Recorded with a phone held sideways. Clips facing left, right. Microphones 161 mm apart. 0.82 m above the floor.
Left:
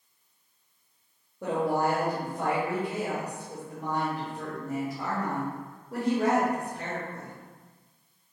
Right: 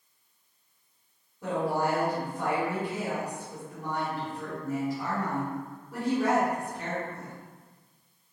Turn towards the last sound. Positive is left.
turn(degrees=60)  # may be behind; listen again after turning